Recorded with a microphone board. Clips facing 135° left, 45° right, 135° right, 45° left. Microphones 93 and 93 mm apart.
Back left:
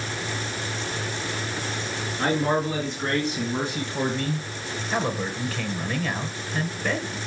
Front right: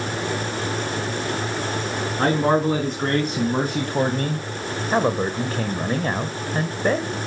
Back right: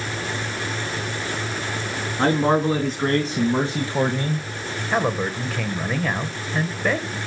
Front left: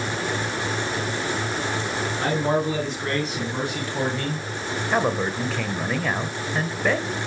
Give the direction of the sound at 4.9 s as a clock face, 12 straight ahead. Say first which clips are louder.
Front right 6 dB, even; 2 o'clock.